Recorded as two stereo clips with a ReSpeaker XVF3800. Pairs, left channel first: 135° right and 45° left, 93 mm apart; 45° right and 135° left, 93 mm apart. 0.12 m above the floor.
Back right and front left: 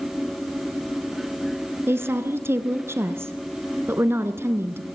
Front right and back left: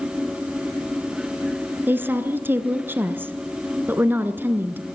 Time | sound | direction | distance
1.9 | a woman speaking | 85° left | 1.7 m